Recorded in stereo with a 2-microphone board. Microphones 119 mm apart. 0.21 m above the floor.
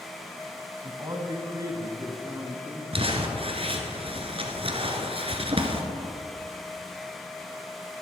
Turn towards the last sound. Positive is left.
turn(degrees=-50)  # may be behind; listen again after turning